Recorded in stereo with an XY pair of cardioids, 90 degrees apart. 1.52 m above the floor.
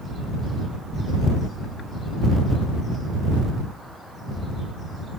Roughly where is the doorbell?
I don't hear a doorbell.